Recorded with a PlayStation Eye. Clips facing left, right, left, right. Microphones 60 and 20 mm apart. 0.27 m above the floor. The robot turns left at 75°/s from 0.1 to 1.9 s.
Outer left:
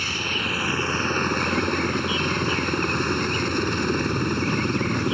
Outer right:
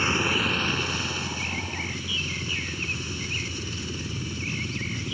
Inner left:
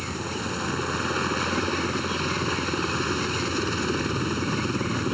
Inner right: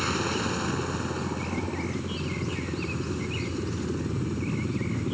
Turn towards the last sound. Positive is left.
turn(degrees=70)